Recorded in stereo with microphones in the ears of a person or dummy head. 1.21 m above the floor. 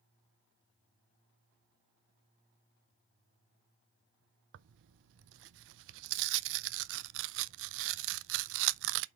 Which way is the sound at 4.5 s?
75° right (ahead or behind).